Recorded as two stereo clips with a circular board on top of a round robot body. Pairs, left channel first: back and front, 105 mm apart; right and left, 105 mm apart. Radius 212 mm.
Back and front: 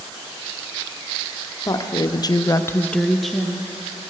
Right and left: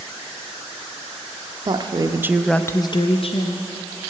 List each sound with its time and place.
1.6 s a woman speaking: 125° left, 0.9 m; by 3.7 s 85° right, 1.1 m